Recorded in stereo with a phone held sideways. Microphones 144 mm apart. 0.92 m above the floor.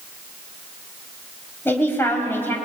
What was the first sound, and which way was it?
A man speaking, 15° left (ahead or behind).